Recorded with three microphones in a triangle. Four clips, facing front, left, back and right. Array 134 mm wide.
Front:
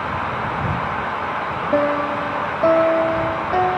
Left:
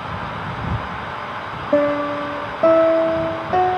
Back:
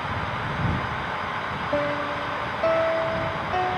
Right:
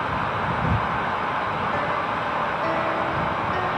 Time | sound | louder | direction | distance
1.7 | a piano | left 7 dB, front 7 dB | 65° left | ?